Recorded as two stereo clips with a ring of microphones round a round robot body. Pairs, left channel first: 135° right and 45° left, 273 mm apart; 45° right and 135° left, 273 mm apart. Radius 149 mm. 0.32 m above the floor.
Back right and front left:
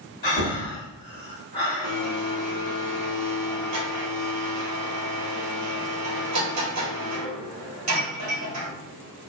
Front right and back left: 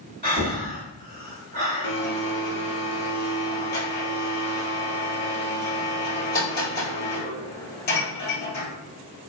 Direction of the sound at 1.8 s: 10° left.